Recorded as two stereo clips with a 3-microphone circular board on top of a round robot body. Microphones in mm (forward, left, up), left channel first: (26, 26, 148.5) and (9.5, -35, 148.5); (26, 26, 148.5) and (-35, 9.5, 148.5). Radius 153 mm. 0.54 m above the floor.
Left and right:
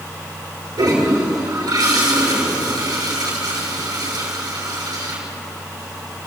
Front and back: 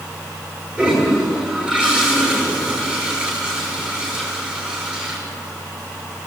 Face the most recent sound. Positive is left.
turn(degrees=-90)